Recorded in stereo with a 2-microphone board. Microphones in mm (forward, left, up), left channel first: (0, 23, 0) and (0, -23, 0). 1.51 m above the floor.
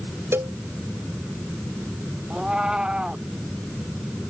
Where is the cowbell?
80° right.